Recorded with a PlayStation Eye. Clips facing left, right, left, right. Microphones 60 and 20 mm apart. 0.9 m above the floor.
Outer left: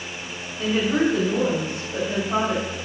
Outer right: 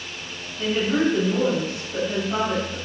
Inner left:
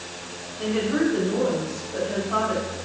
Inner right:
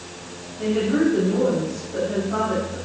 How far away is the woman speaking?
About 4 m.